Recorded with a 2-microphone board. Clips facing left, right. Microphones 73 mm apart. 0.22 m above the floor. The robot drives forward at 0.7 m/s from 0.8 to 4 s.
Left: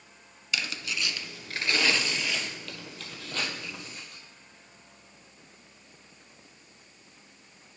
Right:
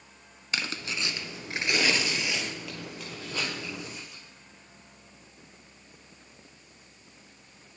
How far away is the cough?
No cough in this recording.